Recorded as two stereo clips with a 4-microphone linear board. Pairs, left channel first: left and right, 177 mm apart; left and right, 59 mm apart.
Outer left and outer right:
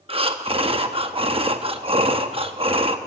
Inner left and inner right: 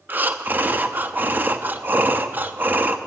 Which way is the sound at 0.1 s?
30° right (ahead or behind).